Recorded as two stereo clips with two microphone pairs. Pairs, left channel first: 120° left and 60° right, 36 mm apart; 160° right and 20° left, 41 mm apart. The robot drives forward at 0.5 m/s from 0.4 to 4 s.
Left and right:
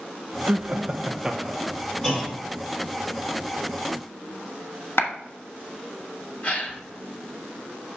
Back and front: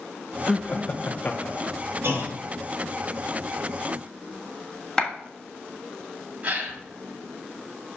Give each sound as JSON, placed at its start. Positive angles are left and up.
{"t": 0.5, "sound": "laughter", "azimuth_deg": -90, "distance_m": 0.7}
{"t": 2.0, "sound": "a clunk", "azimuth_deg": 45, "distance_m": 2.5}
{"t": 5.0, "sound": "a clap", "azimuth_deg": 125, "distance_m": 1.1}
{"t": 6.4, "sound": "a gasp", "azimuth_deg": 80, "distance_m": 1.9}